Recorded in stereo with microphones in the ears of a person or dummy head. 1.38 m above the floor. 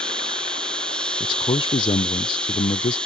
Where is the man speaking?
25° left (ahead or behind).